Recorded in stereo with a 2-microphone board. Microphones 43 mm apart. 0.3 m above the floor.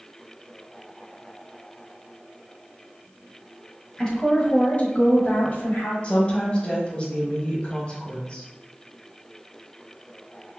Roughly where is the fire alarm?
No fire alarm in this recording.